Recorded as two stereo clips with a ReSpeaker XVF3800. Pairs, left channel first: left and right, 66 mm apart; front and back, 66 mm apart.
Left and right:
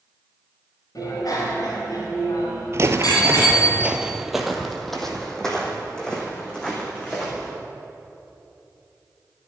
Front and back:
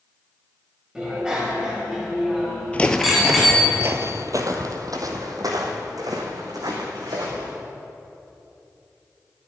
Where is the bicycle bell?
105° left, 3 m; by 3.7 s 95° left, 4.5 m.